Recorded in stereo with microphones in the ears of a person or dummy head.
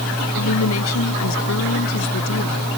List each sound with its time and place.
0.3 s a woman speaking: 80° left